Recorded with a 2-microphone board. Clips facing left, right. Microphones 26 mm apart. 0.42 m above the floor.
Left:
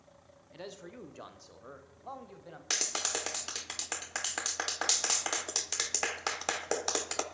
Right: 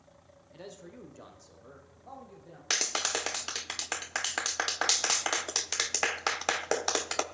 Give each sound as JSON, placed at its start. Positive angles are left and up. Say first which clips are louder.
{"t": 0.5, "sound": "a man speaking", "louder": "left 1 dB", "side_deg": 20, "distance_m": 1.0}
{"t": 2.7, "sound": "a clap", "louder": "right 4 dB", "side_deg": -15, "distance_m": 0.5}